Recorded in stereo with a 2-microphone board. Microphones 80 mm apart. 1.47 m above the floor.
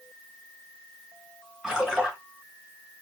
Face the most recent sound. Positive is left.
turn(degrees=-10)  # may be behind; listen again after turning